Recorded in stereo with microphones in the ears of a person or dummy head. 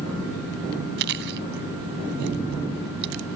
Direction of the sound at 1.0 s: 55° right (ahead or behind).